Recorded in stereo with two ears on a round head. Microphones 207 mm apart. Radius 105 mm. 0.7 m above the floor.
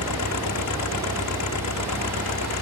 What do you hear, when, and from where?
0.0 s an engine running: 80° left